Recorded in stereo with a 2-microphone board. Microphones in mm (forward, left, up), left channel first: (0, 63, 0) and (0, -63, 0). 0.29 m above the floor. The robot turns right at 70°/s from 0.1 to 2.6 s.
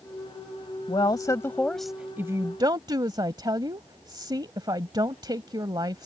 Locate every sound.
0.9 s a woman speaking: 115° left; by 6.1 s 125° right